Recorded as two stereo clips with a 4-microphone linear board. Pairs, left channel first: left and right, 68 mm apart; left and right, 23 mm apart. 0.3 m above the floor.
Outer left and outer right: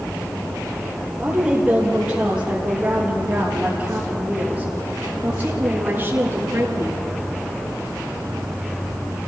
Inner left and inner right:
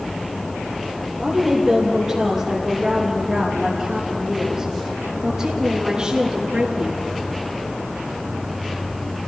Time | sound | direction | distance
1.2 | a woman speaking | 10° right (ahead or behind) | 7.5 m